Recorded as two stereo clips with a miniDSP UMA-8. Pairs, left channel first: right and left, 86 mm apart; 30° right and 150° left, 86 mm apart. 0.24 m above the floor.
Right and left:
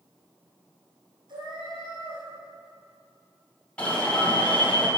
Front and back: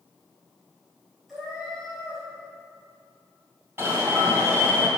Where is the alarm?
160° right, 1.7 m.